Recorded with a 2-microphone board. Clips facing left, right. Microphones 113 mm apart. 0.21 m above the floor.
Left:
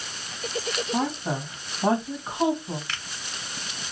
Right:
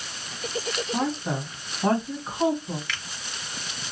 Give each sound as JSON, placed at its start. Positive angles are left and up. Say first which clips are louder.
{"t": 0.9, "sound": "a woman speaking", "louder": "even", "side_deg": 15, "distance_m": 1.3}
{"t": 2.9, "sound": "a finger snap", "louder": "right 1 dB", "side_deg": 35, "distance_m": 1.5}